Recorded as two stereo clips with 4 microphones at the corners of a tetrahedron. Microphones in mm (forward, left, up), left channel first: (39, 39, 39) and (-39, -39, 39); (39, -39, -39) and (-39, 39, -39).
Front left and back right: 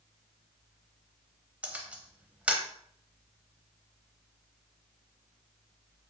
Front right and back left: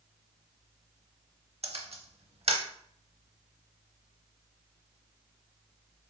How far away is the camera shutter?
About 0.7 m.